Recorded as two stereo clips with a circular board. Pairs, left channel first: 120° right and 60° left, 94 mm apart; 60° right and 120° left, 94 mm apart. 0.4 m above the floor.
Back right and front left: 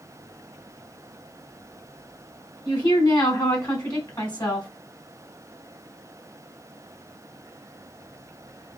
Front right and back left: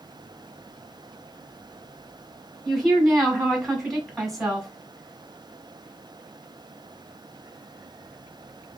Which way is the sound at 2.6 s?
150° right.